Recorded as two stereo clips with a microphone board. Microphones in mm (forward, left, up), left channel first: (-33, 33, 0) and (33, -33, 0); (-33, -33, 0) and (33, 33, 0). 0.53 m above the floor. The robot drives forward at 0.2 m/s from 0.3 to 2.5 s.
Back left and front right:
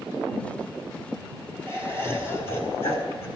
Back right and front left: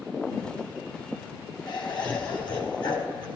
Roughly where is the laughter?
Behind.